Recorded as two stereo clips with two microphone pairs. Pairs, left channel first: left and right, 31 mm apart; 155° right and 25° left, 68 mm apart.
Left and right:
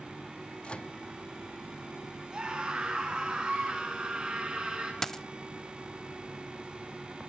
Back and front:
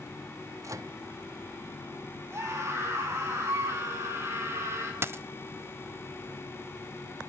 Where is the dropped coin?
20° left, 0.6 m.